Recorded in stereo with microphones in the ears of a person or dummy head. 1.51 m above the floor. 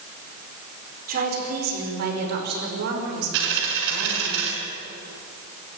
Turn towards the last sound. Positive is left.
turn(degrees=-70)  # may be behind; listen again after turning